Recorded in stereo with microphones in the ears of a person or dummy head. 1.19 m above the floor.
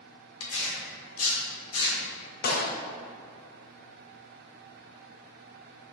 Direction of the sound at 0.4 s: 70° left (ahead or behind).